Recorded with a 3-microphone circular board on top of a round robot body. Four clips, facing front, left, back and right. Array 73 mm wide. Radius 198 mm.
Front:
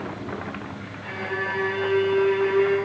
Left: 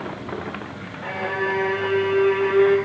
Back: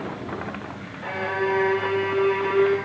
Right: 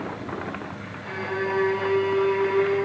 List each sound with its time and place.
1.0 s a violin: 130° left, 3 m